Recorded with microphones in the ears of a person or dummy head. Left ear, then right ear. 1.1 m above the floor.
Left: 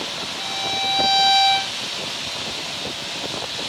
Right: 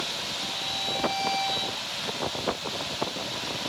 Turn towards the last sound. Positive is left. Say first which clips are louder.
# left 10 dB
turn(degrees=70)  # may be behind; listen again after turning